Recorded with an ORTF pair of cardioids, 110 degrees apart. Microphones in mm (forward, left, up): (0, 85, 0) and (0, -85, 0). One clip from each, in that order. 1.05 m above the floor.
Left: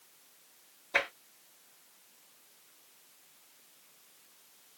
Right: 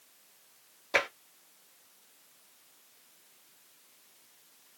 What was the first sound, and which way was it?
Tapping, 55° right.